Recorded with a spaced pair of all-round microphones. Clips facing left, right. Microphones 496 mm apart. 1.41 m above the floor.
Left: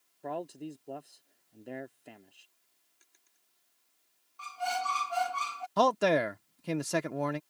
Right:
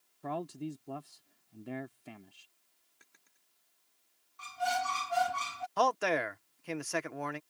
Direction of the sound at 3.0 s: 75° right (ahead or behind).